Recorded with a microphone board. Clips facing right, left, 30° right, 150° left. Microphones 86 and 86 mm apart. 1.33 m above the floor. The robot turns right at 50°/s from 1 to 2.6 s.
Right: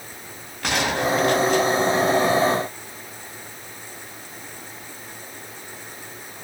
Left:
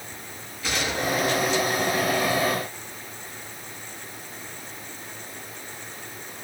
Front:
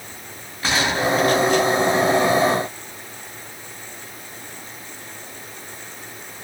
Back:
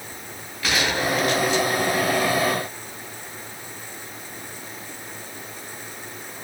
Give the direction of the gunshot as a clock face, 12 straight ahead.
3 o'clock.